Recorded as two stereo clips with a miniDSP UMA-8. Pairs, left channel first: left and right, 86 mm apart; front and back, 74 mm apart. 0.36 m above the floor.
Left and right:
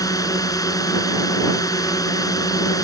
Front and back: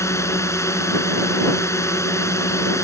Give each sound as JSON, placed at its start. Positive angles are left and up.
{"t": 0.0, "sound": "a drone", "azimuth_deg": 45}